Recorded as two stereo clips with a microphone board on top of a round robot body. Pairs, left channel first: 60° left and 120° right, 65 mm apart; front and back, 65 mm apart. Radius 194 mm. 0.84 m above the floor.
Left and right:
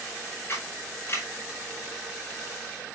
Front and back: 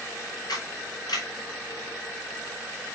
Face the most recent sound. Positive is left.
turn(degrees=10)